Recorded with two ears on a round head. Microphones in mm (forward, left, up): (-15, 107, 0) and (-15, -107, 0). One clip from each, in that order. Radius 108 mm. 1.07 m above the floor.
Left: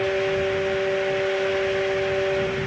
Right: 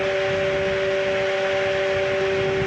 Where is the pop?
I don't hear a pop.